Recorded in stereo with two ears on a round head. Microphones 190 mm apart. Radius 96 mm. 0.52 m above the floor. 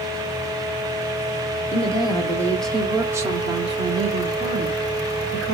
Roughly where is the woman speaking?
Left.